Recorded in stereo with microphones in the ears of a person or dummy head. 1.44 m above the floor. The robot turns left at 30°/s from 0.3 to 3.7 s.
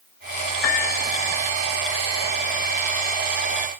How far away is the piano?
About 1.0 m.